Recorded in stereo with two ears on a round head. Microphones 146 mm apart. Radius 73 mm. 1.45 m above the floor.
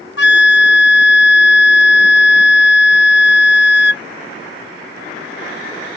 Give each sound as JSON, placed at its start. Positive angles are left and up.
{"t": 0.2, "sound": "a flute", "side_deg": 75}